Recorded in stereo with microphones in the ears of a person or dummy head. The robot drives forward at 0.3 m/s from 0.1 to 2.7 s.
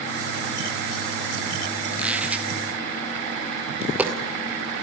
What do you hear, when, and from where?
1.9 s a squeak: 5° right (ahead or behind), 1.0 m
3.8 s a dropped coin: 10° right (ahead or behind), 2 m